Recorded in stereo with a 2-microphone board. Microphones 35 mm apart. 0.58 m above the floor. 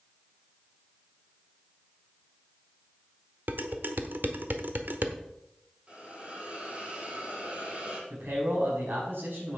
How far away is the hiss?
About 6 m.